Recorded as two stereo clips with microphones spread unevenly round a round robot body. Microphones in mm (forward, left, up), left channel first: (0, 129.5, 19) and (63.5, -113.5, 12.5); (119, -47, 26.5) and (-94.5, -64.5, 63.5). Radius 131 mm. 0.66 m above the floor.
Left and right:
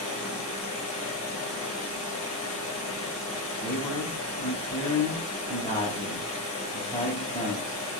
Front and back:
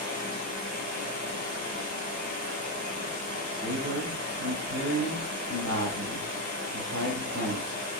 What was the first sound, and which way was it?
Running water, 140° left.